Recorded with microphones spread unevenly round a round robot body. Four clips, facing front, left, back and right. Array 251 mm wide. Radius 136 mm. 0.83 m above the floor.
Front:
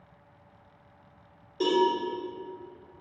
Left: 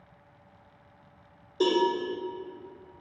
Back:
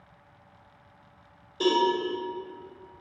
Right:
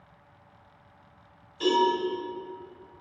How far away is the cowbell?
About 2.5 m.